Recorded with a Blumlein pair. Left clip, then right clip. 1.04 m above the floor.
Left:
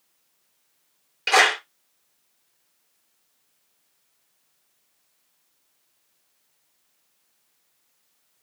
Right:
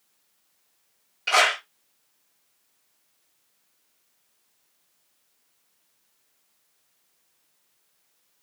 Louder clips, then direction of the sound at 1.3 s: Left 2 dB; 70° left.